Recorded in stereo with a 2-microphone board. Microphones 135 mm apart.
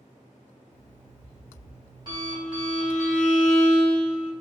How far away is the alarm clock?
About 1.6 m.